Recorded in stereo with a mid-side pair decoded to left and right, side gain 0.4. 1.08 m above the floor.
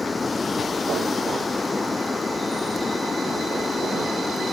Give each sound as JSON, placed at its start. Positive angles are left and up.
{"t": 0.0, "sound": "running water", "azimuth_deg": 30}